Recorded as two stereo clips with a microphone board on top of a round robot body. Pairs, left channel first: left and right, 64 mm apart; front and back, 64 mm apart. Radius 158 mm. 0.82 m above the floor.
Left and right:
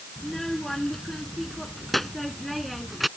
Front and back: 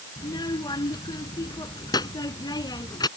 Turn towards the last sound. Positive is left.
turn(degrees=0)